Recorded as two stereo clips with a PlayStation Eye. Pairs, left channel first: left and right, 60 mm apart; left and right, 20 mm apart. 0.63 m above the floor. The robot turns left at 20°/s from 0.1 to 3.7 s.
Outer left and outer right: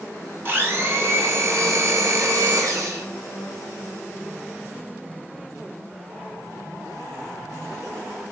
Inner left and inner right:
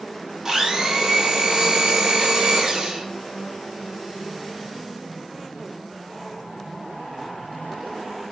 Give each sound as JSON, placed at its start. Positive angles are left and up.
{"t": 0.5, "sound": "a blender", "azimuth_deg": -40, "distance_m": 0.5}